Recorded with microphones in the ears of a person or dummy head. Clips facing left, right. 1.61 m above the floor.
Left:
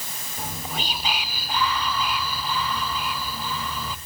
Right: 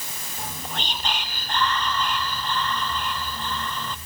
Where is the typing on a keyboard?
No typing on a keyboard in this recording.